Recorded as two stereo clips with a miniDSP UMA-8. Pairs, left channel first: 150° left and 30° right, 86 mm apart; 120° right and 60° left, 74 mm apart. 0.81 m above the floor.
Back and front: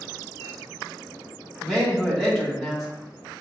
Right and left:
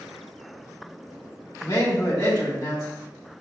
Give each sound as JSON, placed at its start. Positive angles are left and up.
{"t": 1.6, "sound": "a man speaking", "azimuth_deg": -115, "distance_m": 1.9}